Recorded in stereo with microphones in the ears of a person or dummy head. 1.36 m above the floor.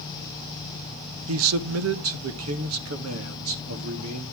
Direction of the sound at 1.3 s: 75° right (ahead or behind).